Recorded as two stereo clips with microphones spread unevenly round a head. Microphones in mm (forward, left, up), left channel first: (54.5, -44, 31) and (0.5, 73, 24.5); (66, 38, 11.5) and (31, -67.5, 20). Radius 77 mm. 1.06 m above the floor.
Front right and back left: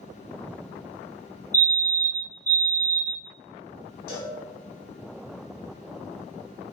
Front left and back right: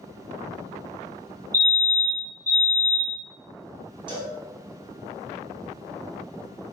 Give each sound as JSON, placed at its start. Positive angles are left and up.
{"t": 1.5, "sound": "a fire alarm", "azimuth_deg": 100, "distance_m": 1.3}
{"t": 4.1, "sound": "a cowbell", "azimuth_deg": -70, "distance_m": 1.0}